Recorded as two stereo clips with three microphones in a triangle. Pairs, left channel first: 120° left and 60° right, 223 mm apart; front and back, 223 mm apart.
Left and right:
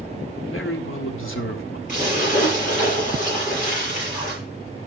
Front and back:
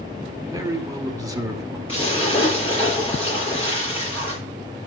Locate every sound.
0.5 s a man speaking: 105° left, 1.7 m
1.9 s a splash: 65° left, 7.5 m